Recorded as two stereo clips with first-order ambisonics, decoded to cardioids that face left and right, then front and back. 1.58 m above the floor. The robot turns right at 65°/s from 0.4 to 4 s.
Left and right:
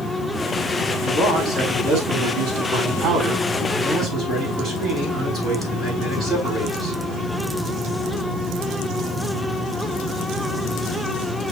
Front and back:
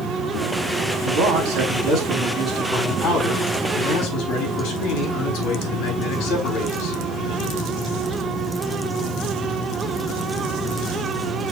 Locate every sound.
1.0 s a man speaking: 175° right, 4.5 m; by 7.0 s 15° left, 4.5 m